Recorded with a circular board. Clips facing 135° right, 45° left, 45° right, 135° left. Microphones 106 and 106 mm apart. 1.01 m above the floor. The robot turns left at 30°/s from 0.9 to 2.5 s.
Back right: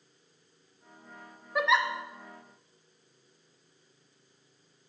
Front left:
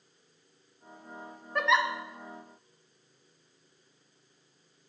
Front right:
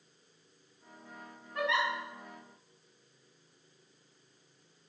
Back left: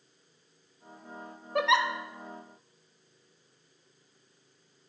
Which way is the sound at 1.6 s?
145° left.